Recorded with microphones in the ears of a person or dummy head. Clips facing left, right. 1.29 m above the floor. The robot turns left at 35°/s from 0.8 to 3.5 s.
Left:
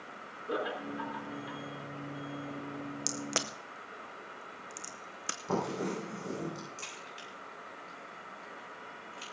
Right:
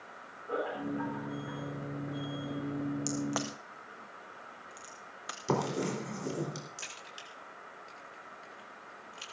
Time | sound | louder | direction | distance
0.5 | laughter | right 1 dB | 85° left | 3.5 m
3.1 | a crack | right 4 dB | 15° left (ahead or behind) | 0.7 m
5.5 | writing | right 2 dB | 70° right (ahead or behind) | 4 m
6.8 | a crack | left 3 dB | 10° right (ahead or behind) | 3.5 m